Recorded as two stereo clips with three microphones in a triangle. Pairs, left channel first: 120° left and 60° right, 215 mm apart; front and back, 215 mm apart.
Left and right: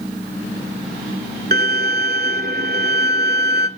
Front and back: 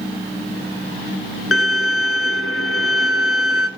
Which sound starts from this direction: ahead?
A violin, at 1.5 s.